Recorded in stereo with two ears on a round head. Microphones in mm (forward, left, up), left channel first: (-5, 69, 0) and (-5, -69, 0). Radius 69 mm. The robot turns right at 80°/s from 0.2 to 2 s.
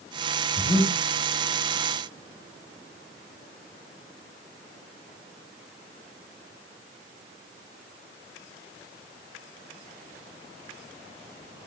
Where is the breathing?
135° left, 3.5 m; by 1.0 s 170° left, 3.5 m.